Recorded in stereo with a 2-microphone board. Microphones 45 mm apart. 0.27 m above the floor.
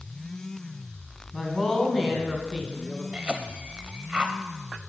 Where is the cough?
25° right (ahead or behind), 1.0 m.